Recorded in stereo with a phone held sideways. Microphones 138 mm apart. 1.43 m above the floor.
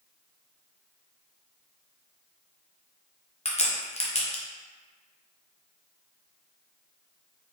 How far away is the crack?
About 0.7 m.